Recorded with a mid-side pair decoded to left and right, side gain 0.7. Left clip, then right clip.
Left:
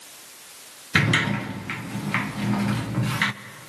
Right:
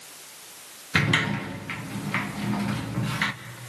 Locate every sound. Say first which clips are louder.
0.9 s a sliding door: left 2 dB; 15° left, 1.1 m